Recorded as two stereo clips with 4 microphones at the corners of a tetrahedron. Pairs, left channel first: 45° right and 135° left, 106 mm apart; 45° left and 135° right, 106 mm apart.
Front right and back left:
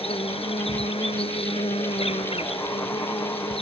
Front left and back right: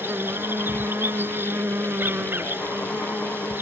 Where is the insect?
65° right.